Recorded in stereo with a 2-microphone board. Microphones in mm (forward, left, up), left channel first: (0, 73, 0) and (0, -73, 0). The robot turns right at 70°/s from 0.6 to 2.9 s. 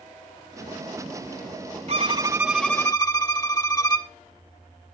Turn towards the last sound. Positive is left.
turn(degrees=25)